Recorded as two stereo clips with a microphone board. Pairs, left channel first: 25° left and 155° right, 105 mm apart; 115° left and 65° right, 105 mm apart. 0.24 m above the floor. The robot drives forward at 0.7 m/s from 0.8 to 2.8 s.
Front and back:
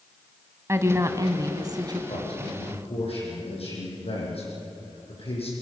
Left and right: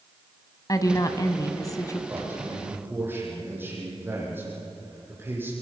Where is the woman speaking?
150° left, 1.6 m; by 2.0 s 165° left, 2 m.